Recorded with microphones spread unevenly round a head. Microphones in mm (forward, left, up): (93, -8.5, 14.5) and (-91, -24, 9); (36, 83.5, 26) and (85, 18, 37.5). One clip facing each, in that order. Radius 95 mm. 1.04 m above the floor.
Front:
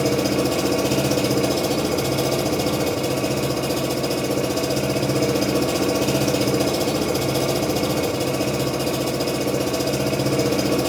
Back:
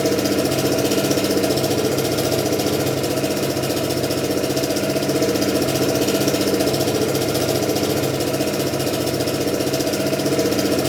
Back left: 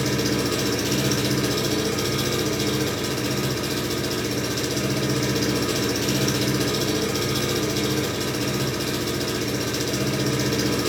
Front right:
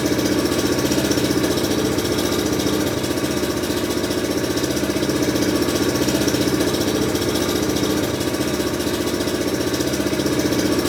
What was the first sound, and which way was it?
An engine running, 100° right.